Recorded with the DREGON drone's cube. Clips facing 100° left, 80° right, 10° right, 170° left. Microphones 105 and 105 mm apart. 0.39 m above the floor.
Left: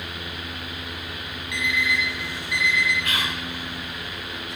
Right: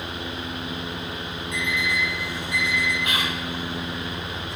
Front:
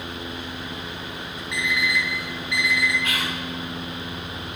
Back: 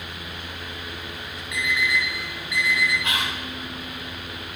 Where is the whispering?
135° right, 1.1 m.